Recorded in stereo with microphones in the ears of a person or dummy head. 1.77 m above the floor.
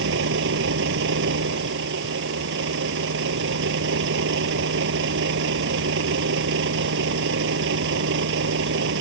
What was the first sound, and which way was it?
A vehicle, 70° right (ahead or behind).